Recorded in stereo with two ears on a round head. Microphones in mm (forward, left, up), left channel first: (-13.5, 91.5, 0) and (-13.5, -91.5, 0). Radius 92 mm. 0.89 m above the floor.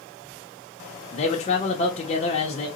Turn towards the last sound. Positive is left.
turn(degrees=35)  # may be behind; listen again after turning